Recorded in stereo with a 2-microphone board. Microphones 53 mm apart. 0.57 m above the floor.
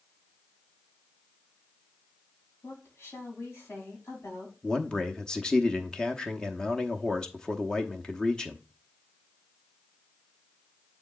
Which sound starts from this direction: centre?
A man speaking, at 4.6 s.